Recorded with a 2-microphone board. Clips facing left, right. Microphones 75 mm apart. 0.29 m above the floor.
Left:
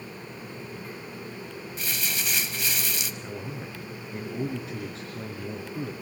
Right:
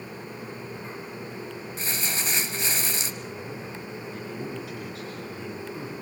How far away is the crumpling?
About 1.5 m.